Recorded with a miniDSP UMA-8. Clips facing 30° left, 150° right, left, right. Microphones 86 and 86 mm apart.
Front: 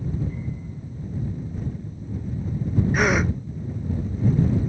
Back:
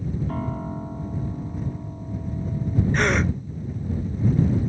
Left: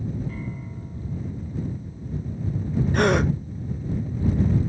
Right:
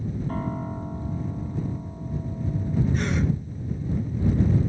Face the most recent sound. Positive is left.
turn(degrees=115)